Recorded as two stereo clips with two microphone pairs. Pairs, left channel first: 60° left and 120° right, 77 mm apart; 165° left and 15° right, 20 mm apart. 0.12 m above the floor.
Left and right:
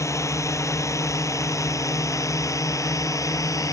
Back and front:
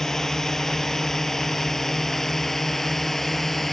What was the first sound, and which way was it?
A drone, 95° left.